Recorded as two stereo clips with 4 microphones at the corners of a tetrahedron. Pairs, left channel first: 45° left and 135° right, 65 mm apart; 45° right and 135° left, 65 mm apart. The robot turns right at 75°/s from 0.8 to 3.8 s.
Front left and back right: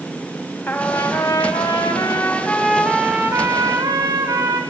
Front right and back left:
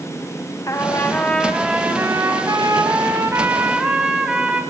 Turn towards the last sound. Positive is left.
turn(degrees=-145)